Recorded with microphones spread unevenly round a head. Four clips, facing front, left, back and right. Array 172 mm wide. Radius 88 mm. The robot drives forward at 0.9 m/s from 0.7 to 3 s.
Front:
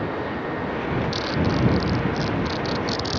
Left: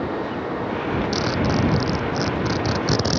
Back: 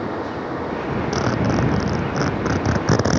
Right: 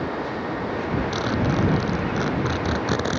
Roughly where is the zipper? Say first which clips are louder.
Left 1 dB, back 3 dB; behind.